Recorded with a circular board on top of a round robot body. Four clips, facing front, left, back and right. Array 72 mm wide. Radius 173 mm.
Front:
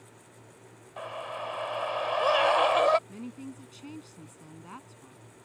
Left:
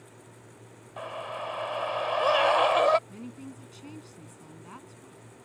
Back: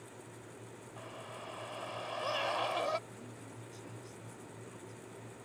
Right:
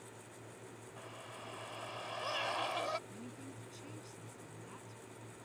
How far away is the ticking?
No ticking in this recording.